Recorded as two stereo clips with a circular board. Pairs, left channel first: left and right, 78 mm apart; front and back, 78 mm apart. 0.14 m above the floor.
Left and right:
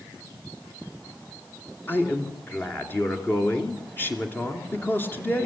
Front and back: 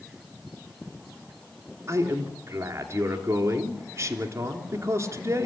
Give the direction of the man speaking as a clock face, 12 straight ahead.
7 o'clock.